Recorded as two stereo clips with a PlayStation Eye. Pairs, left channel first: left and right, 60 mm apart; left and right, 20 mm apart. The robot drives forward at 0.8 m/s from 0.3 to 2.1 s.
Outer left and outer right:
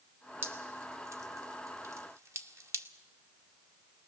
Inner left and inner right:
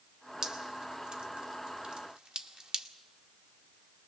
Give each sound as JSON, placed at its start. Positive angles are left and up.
{"t": 0.4, "sound": "dripping", "side_deg": -40, "distance_m": 1.3}